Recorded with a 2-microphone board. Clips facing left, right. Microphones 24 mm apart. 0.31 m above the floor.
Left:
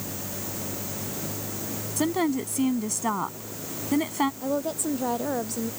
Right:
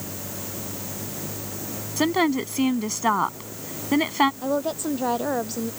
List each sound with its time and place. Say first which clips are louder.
2.0 s a woman speaking: right 4 dB; 40° right (ahead or behind)
4.4 s a woman speaking: right 2 dB; 25° right (ahead or behind)